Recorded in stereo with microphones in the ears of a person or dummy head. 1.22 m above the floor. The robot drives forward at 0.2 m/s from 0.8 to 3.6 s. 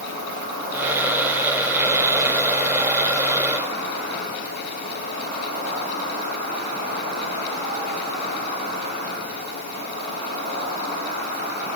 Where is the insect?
75° right (ahead or behind), 1.1 m; by 11.8 s 55° right (ahead or behind), 1.4 m.